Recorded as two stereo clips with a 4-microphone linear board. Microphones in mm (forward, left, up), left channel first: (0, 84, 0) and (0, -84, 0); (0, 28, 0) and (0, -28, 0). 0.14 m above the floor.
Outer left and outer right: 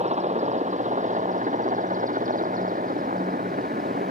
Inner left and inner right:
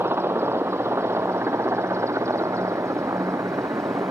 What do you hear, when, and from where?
0.0 s a helicopter: 40° right (ahead or behind); by 4.1 s 55° right (ahead or behind)